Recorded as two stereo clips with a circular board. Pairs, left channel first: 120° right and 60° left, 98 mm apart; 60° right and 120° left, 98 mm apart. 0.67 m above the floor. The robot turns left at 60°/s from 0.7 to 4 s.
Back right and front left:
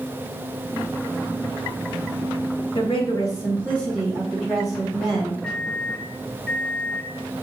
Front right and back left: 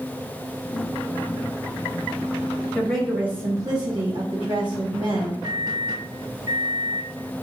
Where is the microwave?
160° left, 2 m.